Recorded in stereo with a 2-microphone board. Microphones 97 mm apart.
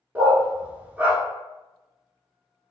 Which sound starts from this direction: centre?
A dog barking, at 0.1 s.